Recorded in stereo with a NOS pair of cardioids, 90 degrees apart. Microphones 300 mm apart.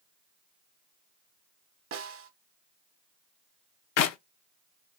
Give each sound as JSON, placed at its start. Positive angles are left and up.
{"t": 1.9, "sound": "a snare drum", "azimuth_deg": -45, "distance_m": 0.9}
{"t": 4.0, "sound": "a clap", "azimuth_deg": 65, "distance_m": 0.5}